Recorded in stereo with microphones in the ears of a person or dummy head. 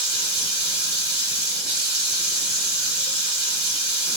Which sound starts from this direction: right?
Running water, at 0.0 s.